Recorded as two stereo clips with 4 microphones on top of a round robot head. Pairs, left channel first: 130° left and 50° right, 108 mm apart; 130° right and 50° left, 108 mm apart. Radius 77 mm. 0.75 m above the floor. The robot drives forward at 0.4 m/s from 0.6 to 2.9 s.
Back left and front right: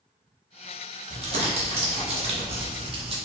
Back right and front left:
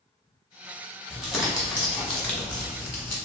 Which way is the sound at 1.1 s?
40° right.